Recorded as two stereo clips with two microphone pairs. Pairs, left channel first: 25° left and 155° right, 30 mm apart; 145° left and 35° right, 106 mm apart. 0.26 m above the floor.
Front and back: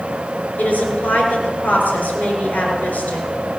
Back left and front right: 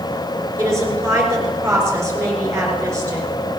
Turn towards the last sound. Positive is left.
turn(degrees=25)